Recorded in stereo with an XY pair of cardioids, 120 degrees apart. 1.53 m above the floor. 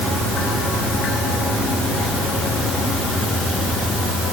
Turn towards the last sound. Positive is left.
No sound to turn to.